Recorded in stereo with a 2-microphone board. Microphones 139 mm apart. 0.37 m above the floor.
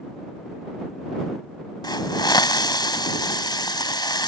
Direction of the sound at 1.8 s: 30° left (ahead or behind).